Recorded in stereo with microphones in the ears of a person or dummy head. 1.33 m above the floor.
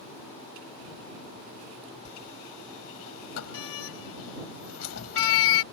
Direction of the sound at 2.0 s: 80° left.